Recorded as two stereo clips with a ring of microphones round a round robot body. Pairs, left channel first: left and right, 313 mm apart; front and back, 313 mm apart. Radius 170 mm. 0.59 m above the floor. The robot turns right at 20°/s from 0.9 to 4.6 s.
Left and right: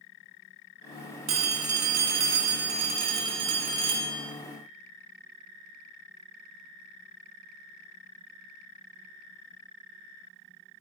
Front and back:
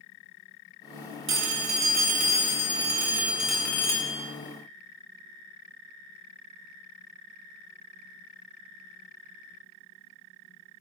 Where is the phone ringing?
135° right, 1.0 m; by 4.2 s 75° right, 1.0 m.